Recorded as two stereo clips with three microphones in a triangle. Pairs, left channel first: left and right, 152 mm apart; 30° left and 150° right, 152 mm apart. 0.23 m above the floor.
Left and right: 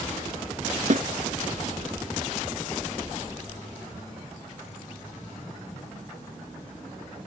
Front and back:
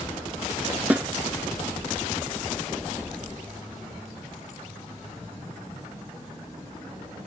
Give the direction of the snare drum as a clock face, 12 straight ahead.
2 o'clock.